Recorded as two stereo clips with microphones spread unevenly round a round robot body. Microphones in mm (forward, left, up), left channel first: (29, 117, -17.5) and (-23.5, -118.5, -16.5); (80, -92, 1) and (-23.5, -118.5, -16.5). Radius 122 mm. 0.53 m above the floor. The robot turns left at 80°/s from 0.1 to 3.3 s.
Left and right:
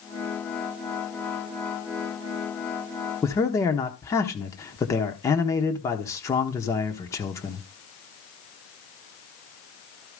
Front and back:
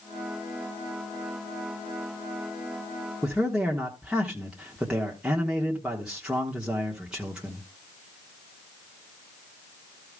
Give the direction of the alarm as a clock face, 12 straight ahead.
I don't hear an alarm.